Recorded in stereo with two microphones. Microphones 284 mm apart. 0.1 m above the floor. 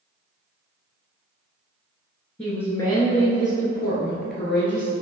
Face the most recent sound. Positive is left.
turn(degrees=45)  # may be behind; listen again after turning